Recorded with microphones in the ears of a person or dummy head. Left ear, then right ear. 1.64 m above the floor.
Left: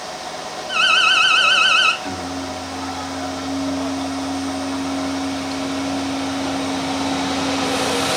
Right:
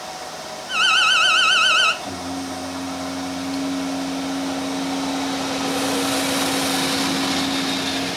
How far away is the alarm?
About 0.7 m.